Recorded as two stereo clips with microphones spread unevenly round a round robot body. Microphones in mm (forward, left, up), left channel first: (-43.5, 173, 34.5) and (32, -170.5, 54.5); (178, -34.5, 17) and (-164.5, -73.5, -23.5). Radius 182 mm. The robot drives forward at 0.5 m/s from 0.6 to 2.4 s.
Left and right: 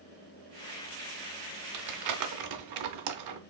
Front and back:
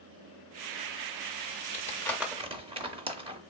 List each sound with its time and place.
1.7 s crumpling: 50° right, 0.6 m; by 3.4 s 95° right, 0.5 m